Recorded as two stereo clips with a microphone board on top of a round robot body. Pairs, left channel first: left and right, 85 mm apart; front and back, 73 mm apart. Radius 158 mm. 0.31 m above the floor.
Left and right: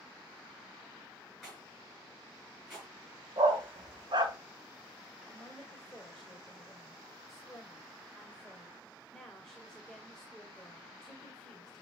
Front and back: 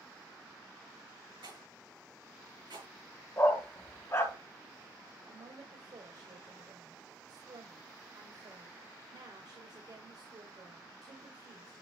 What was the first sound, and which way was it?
A rattle, 175° right.